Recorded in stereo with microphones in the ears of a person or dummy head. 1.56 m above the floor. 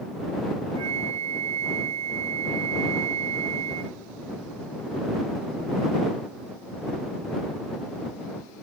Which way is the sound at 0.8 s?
30° right (ahead or behind).